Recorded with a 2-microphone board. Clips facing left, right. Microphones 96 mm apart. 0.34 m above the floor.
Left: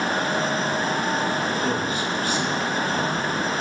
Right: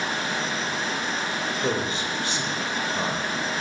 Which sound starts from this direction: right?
A man speaking, at 1.6 s.